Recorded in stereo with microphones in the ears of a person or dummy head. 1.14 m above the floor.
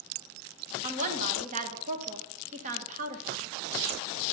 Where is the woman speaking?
40° right (ahead or behind), 1.3 m.